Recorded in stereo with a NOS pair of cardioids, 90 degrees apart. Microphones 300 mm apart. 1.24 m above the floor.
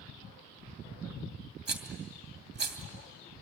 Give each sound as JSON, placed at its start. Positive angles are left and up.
{"t": 1.7, "sound": "a rattle", "azimuth_deg": -35, "distance_m": 2.5}